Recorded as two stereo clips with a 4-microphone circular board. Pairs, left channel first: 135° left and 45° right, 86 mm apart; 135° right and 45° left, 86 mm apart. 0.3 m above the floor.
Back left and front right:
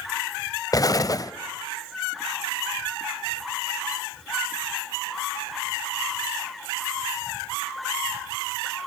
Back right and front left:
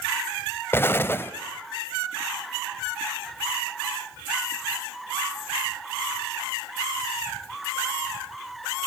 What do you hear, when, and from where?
0.7 s an explosion: 170° left, 0.7 m